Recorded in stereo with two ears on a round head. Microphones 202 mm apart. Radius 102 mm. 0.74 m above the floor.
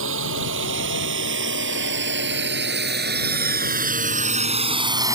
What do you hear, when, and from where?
0.0 s a drone: 55° right (ahead or behind); by 5.2 s 10° right (ahead or behind)